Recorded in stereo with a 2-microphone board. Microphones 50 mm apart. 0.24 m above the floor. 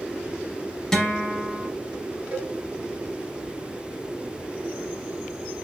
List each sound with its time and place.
0.9 s a guitar: 10° left (ahead or behind), 0.7 m
2.3 s a cowbell: 35° right (ahead or behind), 0.7 m